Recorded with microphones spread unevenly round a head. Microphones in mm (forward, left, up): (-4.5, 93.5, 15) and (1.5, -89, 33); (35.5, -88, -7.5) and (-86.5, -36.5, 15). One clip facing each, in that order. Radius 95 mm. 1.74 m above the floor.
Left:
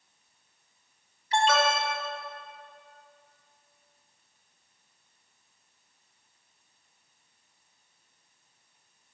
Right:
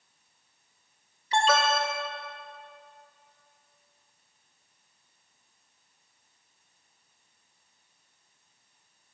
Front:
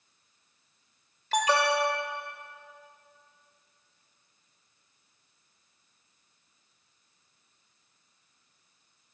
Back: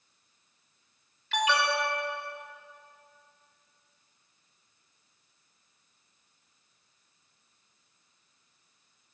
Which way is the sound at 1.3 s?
75° right.